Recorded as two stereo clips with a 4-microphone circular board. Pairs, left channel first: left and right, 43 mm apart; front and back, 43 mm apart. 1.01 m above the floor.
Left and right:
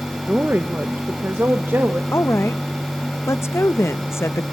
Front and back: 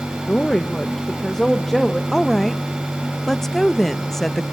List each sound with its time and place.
0.3 s a woman speaking: 50° right, 0.9 m; by 2.0 s 85° right, 1.8 m
2.1 s a woman speaking: 85° left, 0.6 m